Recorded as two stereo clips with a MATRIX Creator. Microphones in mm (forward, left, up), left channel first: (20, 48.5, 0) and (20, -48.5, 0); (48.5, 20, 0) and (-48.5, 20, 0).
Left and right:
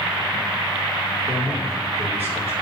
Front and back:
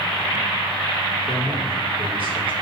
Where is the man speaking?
160° right, 4.5 m.